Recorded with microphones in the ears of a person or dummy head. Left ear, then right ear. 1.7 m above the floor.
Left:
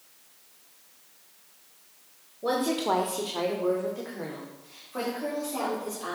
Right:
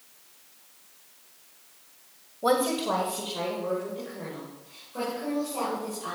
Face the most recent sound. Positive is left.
turn(degrees=70)  # may be behind; listen again after turning